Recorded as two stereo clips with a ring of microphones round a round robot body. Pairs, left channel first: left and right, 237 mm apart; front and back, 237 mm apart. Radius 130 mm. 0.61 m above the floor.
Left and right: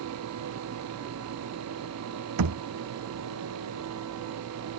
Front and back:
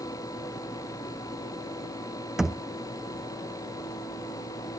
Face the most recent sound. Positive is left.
turn(degrees=-90)